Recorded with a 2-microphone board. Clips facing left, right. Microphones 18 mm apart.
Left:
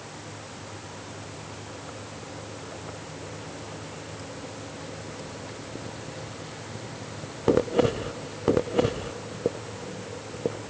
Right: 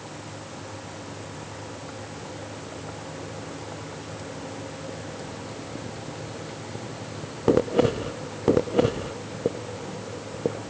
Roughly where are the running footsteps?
No running footsteps in this recording.